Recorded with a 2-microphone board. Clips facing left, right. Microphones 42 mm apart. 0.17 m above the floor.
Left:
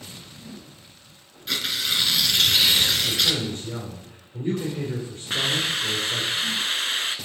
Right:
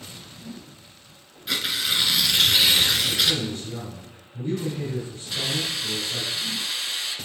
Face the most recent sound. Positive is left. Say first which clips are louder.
# left 4 dB
turn(degrees=55)  # may be behind; listen again after turning